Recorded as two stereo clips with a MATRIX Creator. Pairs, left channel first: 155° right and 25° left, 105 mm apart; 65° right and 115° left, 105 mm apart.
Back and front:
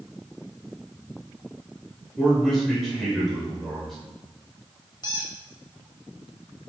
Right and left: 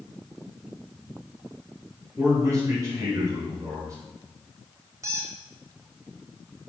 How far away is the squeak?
About 1.0 m.